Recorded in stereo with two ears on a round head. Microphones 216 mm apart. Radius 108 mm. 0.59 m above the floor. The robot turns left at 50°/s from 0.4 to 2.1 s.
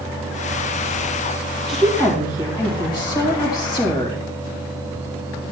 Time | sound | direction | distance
1.7 | a woman speaking | centre (ahead or behind) | 2.5 m